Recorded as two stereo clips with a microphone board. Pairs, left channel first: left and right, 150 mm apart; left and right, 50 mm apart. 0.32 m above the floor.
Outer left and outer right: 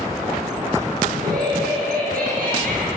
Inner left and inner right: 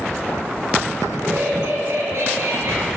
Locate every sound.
1.1 s laughter: 80° right, 6.5 m; by 2.9 s 65° right (ahead or behind), 6.5 m